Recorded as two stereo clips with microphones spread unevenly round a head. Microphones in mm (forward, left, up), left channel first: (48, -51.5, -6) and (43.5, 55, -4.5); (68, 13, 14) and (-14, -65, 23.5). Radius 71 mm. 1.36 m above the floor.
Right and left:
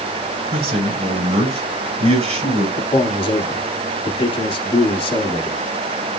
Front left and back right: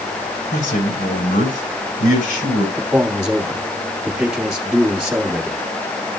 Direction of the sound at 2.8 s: 55° right.